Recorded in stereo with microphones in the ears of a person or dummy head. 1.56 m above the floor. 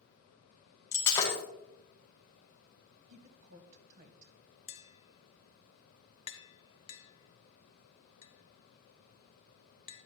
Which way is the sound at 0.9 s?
20° left (ahead or behind).